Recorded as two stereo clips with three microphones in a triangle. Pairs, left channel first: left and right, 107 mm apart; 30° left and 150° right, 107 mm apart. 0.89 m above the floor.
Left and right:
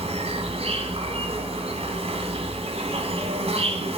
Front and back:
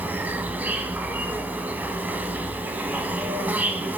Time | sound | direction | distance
0.0 | an insect | 75° right | 2 m